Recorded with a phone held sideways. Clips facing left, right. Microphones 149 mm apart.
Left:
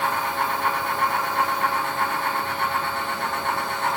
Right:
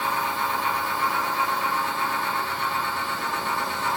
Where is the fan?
60° left (ahead or behind), 0.9 m.